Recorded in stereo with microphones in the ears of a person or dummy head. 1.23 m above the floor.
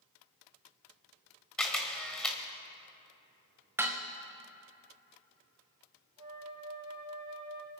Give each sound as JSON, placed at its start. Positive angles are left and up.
{"t": 1.6, "sound": "a camera shutter", "side_deg": 5, "distance_m": 1.5}
{"t": 3.8, "sound": "dishes clattering", "side_deg": -15, "distance_m": 0.9}
{"t": 6.2, "sound": "a flute", "side_deg": -25, "distance_m": 3.5}